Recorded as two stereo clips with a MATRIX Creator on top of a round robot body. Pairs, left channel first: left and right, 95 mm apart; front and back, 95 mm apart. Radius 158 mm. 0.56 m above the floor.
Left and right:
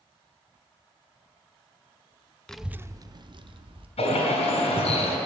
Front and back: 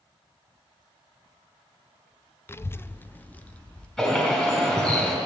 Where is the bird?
80° left, 3 m.